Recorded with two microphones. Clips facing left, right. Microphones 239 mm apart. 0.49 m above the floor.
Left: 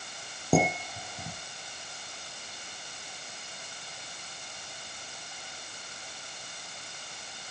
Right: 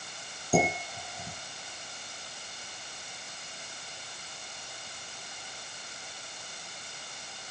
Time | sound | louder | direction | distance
0.5 | dishes clattering | left 2 dB | 75° left (ahead or behind) | 9 m